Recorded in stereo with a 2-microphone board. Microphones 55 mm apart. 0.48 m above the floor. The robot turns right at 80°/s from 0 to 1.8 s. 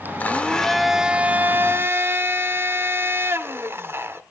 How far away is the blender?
About 1.2 m.